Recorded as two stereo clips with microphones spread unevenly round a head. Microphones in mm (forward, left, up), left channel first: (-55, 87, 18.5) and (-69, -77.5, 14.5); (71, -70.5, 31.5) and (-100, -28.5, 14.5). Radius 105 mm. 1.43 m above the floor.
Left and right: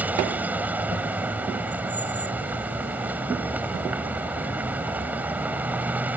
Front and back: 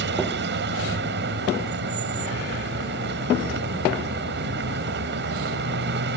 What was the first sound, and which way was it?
A vehicle, 175° right.